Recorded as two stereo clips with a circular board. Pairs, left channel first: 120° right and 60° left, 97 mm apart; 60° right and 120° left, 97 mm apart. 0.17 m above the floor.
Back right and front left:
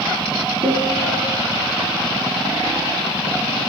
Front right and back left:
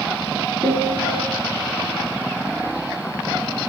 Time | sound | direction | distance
0.6 | a piano | 50° left | 1.7 m